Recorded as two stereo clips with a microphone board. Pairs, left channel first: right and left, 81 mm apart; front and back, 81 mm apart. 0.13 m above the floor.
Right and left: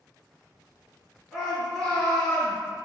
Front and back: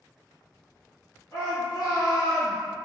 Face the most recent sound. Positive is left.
turn(degrees=0)